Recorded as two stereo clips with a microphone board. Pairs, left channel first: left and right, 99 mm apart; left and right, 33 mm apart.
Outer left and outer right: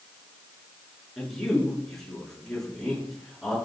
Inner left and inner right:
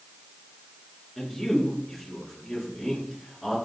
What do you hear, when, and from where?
1.2 s a man speaking: centre (ahead or behind), 6 m